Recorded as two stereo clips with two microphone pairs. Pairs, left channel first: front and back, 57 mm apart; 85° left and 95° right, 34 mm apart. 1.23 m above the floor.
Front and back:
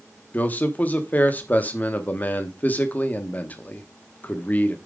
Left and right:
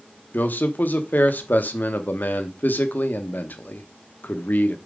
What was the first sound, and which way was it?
A man speaking, 60° left.